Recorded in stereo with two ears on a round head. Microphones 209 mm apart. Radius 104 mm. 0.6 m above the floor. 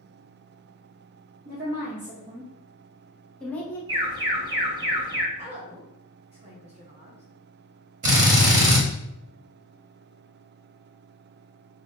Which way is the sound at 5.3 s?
30° right (ahead or behind).